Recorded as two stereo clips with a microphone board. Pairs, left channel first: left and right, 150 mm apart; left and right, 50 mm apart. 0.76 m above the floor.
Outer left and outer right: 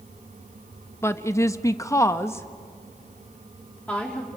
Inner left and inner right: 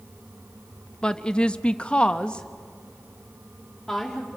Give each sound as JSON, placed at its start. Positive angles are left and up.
{"t": 1.0, "sound": "a woman speaking", "side_deg": 15, "distance_m": 0.6}